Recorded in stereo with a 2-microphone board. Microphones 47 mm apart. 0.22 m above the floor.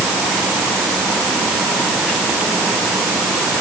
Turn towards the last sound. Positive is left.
No sound to turn to.